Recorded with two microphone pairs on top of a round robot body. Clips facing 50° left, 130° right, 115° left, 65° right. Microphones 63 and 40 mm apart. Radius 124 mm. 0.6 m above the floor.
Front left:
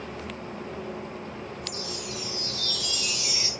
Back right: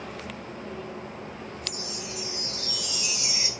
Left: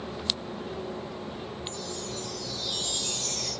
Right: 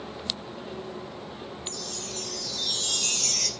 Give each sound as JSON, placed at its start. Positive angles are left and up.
{"t": 1.7, "sound": "a chime", "azimuth_deg": -60, "distance_m": 3.0}